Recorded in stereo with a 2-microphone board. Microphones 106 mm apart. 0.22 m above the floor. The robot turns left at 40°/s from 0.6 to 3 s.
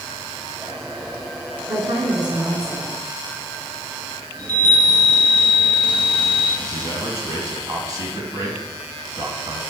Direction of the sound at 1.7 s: 100° right.